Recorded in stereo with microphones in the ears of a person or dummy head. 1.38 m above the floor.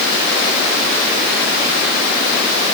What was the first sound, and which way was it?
Only background noise.